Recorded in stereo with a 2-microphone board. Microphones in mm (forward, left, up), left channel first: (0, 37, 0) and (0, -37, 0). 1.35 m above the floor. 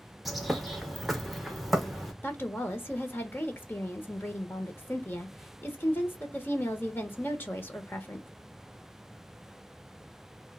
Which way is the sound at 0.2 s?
Centre (ahead or behind).